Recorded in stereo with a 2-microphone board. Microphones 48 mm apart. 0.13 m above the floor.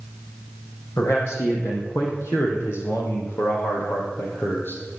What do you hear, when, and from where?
1.0 s a man speaking: 75° left (ahead or behind), 5.5 m; by 4.8 s 45° left (ahead or behind), 4 m